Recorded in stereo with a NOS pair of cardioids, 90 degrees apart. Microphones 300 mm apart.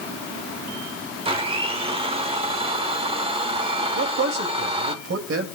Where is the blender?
20° right, 1.6 m.